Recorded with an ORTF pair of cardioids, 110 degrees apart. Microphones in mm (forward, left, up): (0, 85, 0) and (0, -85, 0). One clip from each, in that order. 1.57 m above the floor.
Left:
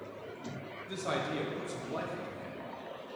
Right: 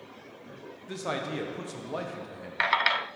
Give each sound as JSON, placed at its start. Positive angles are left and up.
{"t": 0.9, "sound": "a man speaking", "azimuth_deg": -30, "distance_m": 1.4}